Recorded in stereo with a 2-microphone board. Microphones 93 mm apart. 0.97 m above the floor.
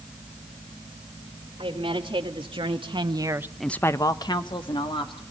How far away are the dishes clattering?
No dishes clattering in this recording.